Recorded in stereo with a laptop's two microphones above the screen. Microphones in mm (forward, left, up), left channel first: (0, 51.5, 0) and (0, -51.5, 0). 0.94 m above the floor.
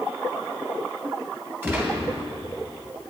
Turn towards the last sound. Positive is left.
turn(degrees=-20)  # may be behind; listen again after turning